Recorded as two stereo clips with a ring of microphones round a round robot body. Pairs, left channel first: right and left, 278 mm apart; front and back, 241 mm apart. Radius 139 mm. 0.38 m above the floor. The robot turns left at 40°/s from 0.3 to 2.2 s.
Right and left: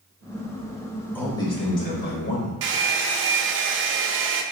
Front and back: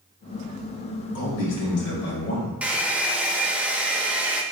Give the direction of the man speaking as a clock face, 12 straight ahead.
12 o'clock.